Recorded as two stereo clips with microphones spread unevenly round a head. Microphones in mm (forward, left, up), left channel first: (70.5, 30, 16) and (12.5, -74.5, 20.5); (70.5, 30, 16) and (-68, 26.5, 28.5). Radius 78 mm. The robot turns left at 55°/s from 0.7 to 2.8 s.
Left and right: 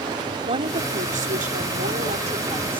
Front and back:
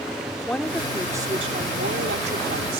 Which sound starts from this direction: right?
A woman speaking, at 0.5 s.